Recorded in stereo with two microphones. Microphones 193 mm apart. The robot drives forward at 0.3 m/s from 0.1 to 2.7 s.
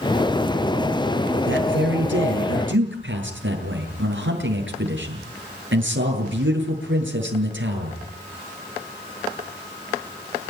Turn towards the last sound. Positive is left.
turn(degrees=-85)